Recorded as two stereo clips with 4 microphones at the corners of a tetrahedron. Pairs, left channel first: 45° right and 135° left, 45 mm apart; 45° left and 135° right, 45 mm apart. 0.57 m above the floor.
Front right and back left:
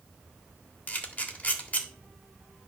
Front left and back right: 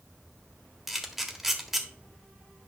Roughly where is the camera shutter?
Ahead right.